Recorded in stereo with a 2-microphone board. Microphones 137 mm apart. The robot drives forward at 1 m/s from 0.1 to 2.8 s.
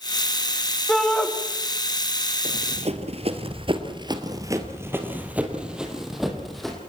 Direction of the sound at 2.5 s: 50° right (ahead or behind).